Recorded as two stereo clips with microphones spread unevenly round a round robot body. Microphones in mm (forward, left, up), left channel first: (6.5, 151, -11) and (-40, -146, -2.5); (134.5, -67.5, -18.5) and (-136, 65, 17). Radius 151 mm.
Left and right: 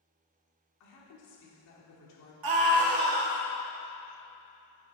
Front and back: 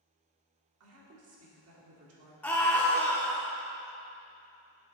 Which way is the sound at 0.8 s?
110° left.